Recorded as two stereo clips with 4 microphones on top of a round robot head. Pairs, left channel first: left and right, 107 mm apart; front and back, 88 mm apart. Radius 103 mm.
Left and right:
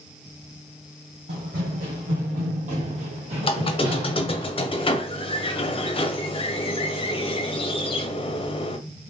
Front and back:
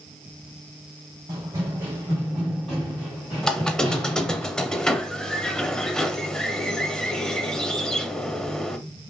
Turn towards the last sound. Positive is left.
turn(degrees=80)